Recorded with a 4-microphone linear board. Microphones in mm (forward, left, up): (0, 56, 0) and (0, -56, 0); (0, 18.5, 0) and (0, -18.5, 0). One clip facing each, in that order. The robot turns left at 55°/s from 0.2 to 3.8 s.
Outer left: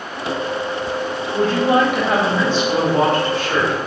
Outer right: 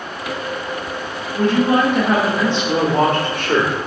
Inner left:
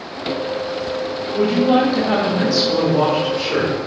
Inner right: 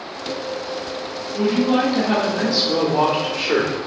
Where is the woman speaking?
45° left, 1.5 m; by 3.8 s 90° right, 1.5 m.